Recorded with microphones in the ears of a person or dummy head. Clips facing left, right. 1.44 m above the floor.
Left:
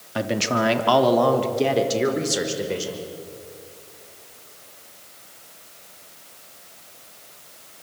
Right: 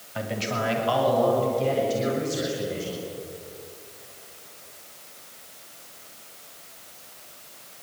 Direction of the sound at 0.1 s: 65° left (ahead or behind).